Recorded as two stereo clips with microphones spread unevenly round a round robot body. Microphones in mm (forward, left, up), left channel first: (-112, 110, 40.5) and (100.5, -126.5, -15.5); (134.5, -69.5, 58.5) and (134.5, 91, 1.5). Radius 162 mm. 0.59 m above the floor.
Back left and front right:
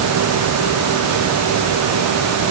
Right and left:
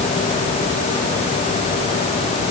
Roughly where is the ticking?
I don't hear ticking.